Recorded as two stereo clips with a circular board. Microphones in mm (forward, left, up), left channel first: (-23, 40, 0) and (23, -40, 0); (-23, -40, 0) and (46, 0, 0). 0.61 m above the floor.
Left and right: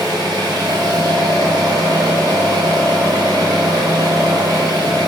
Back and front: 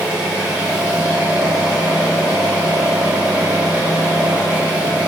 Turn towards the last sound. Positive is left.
turn(degrees=-40)